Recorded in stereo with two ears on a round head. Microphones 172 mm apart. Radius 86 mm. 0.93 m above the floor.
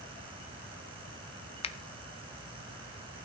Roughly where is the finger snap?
Left.